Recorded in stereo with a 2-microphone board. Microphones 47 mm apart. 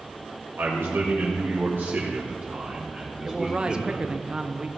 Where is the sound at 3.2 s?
20° right (ahead or behind), 0.7 m.